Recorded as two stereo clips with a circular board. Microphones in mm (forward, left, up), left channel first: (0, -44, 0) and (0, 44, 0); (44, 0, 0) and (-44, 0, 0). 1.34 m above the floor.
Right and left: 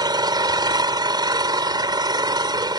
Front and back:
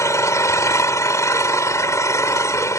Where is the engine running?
55° left.